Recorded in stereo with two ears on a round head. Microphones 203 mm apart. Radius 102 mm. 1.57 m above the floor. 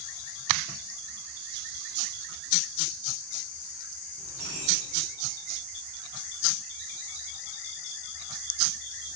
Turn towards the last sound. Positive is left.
turn(degrees=-75)  # may be behind; listen again after turning